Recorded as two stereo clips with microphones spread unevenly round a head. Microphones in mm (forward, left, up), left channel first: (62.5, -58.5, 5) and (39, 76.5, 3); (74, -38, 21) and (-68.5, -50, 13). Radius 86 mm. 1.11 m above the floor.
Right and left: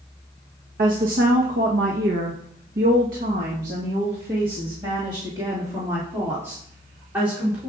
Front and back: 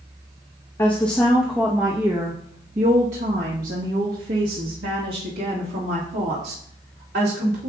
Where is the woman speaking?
80° left, 1.3 m; by 7.7 s straight behind, 3 m.